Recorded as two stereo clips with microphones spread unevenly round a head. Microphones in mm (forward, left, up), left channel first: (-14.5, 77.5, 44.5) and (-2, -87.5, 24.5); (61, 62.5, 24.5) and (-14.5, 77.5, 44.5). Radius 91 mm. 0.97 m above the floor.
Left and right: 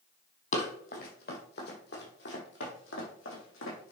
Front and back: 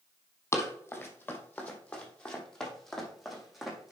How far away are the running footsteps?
About 2.5 m.